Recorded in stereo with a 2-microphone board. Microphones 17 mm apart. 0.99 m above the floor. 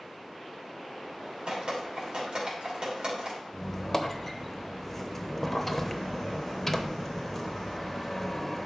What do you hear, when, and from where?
1.5 s dripping: 45° right (ahead or behind), 2.5 m
3.5 s a squeak: 15° left (ahead or behind), 0.7 m